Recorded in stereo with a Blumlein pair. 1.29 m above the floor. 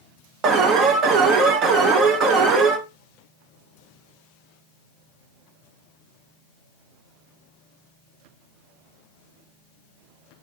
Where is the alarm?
30° right, 0.7 m.